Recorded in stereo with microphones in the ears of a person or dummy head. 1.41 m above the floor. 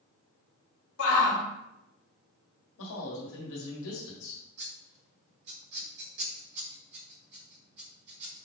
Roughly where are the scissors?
Right.